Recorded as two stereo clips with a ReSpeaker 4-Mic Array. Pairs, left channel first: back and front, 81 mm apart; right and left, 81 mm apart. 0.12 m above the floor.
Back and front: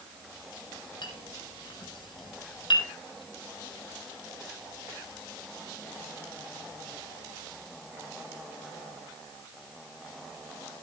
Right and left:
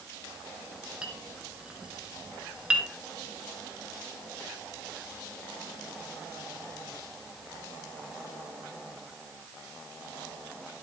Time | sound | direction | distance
1.0 | a clink | 165° left | 3 m